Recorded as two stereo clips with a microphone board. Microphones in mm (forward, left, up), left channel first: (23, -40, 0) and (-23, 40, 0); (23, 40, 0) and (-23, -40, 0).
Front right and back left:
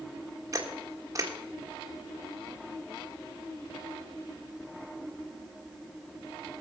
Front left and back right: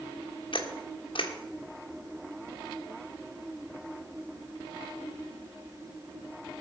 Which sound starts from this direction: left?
A camera shutter, at 0.5 s.